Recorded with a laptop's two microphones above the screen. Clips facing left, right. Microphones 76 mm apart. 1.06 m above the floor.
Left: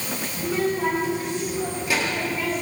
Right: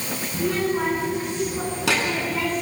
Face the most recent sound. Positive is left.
turn(degrees=-90)